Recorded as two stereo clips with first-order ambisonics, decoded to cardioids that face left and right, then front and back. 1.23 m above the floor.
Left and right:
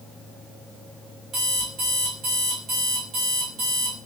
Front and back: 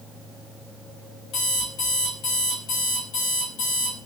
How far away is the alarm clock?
About 1.3 m.